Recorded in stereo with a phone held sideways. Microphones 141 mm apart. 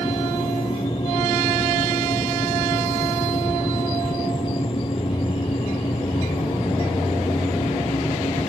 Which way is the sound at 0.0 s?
40° left (ahead or behind).